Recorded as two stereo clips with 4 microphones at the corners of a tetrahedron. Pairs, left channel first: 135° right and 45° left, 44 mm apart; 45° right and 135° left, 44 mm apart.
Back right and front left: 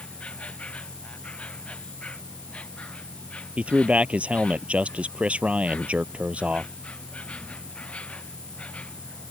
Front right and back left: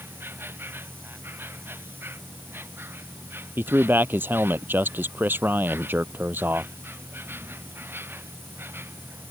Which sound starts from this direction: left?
A man speaking, at 3.6 s.